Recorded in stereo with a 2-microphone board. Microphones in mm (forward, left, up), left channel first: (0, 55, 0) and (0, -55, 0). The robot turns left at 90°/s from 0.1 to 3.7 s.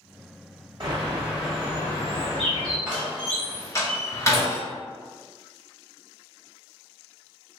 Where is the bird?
125° right, 1.5 m; by 2.8 s 60° left, 1.5 m.